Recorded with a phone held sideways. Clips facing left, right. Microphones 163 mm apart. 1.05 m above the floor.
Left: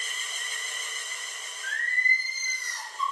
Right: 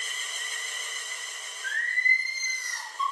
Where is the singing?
75° left (ahead or behind), 1.3 m.